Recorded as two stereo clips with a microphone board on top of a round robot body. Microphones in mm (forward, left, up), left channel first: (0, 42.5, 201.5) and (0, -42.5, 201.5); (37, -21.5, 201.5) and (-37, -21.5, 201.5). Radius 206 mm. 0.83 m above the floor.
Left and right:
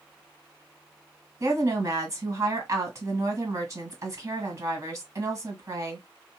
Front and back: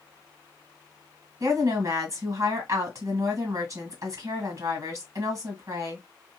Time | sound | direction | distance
1.4 | a woman speaking | 135° right | 1.8 m